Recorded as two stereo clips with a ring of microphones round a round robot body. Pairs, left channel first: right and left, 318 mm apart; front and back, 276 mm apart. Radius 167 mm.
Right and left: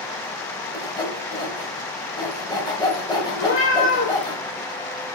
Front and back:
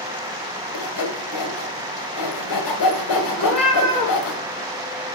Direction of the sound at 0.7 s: 10° right.